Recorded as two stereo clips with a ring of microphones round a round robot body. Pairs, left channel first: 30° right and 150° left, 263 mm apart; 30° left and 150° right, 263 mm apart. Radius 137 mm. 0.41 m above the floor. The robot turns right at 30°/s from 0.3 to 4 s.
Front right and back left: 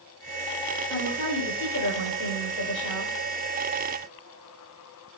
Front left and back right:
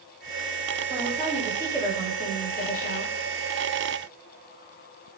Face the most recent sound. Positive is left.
turn(degrees=20)